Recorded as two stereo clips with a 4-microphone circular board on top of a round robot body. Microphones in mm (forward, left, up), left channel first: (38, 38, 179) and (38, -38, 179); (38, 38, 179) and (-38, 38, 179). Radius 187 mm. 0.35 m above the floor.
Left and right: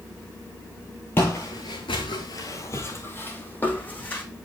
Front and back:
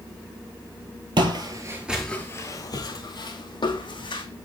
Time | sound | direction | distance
1.2 | footsteps | 155° left | 0.8 m